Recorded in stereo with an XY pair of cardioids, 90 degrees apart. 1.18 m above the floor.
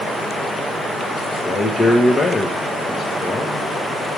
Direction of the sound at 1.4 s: 35° left.